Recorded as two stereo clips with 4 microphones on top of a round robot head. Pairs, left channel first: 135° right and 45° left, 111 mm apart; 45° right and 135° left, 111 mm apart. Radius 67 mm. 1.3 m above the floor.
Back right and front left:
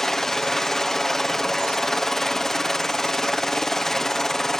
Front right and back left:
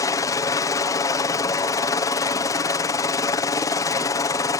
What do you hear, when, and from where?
0.0 s a helicopter: 50° right